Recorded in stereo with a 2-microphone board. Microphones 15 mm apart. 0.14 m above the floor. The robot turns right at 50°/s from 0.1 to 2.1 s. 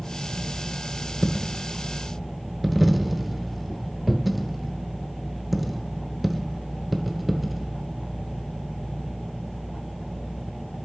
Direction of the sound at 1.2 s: 30° left (ahead or behind).